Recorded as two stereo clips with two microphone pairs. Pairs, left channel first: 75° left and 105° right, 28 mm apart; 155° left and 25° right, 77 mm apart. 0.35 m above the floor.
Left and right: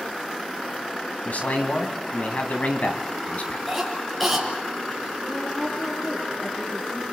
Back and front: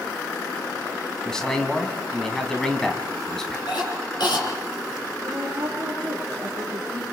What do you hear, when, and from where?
1.2 s a man speaking: 75° left, 2.5 m
3.7 s a cough: 165° left, 6 m
5.2 s a woman speaking: 30° left, 6.5 m